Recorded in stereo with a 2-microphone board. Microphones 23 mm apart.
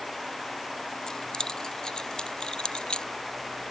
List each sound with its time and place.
1.1 s keys jangling: 35° left (ahead or behind); by 3.1 s 50° left (ahead or behind)